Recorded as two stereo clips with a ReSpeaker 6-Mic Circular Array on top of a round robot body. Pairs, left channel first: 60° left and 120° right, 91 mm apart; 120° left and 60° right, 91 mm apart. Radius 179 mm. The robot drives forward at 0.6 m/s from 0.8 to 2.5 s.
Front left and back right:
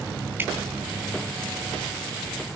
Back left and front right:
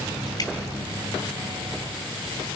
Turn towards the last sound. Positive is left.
turn(degrees=175)